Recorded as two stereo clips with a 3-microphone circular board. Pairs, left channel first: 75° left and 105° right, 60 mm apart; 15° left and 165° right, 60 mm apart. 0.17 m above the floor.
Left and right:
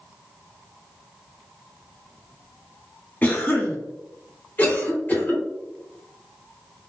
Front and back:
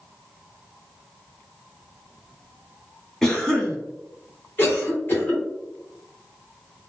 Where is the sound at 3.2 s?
90° left, 1.2 m.